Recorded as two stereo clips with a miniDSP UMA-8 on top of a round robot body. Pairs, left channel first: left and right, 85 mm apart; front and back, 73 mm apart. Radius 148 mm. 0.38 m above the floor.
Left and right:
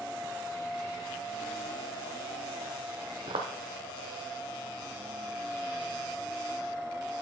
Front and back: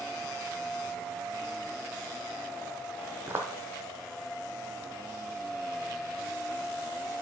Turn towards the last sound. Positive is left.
turn(degrees=-115)